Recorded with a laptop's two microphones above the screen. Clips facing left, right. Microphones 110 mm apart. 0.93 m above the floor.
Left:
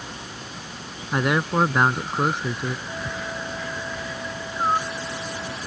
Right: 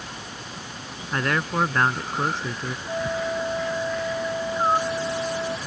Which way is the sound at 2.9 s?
35° right (ahead or behind).